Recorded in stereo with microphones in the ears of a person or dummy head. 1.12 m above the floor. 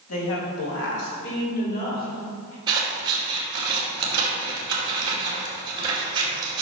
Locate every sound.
0.1 s a woman speaking: 80° left, 3 m; by 2.6 s 45° left (ahead or behind), 5 m
2.7 s scissors: 20° right (ahead or behind), 2.5 m